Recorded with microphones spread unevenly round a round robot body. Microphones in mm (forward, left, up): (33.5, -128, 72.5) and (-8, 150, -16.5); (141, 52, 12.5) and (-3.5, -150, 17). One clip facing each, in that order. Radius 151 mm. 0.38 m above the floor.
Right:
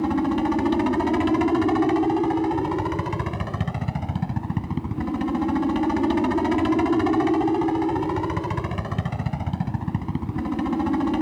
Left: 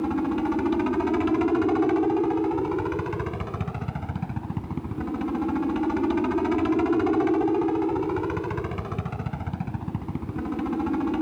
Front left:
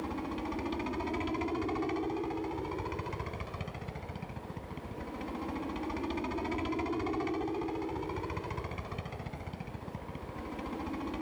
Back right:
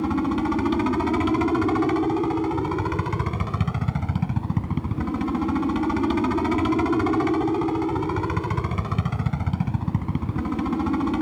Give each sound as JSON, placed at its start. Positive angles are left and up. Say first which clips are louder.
{"t": 0.0, "sound": "a helicopter", "louder": "right 3 dB, back right 14 dB", "azimuth_deg": -140}